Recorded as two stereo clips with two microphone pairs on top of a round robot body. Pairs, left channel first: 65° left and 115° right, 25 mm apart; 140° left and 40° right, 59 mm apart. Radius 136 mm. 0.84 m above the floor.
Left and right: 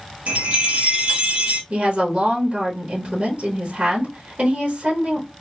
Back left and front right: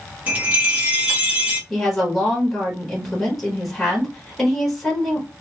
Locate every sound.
0.3 s a chime: 105° right, 1.6 m
1.7 s a woman speaking: 135° right, 1.3 m